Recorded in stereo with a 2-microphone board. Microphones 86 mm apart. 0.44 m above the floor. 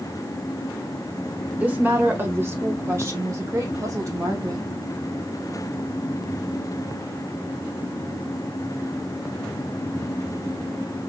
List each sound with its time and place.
1.6 s a woman speaking: 15° right (ahead or behind), 1.5 m; by 4.7 s 45° right (ahead or behind), 3 m